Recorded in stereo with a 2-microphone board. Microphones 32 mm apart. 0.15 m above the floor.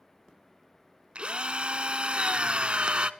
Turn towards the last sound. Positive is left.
turn(degrees=-40)  # may be behind; listen again after turning